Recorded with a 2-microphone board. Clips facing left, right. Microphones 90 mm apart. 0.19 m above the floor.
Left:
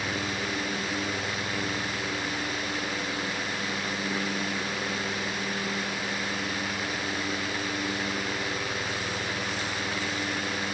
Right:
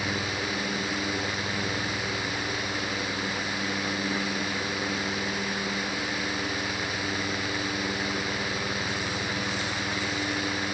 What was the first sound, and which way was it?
Only background noise.